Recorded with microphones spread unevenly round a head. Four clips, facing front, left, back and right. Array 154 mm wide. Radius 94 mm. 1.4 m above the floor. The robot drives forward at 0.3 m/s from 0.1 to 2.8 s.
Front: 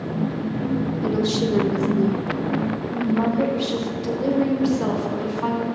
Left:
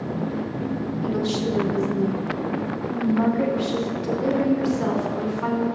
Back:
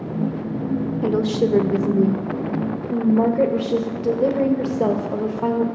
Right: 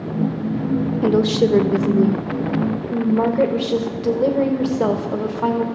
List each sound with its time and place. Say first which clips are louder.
1.0 s a woman speaking: right 8 dB, back 4 dB; 105° right, 0.6 m; by 5.7 s 140° right, 0.9 m